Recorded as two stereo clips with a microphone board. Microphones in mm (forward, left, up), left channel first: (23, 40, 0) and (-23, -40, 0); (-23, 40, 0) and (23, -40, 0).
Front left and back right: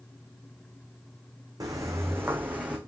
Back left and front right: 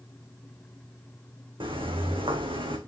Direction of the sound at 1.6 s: 75° right.